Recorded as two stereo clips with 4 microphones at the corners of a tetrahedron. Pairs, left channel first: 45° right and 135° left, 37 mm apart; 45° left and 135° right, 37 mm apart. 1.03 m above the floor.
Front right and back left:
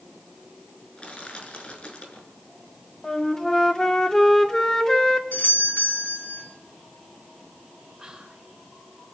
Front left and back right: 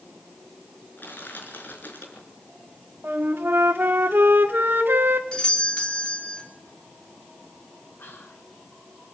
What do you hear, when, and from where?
1.0 s crushing: 15° left, 5.5 m
3.0 s a flute: 115° right, 1.9 m
5.3 s a doorbell: 15° right, 4 m
8.0 s whispering: 60° left, 5.5 m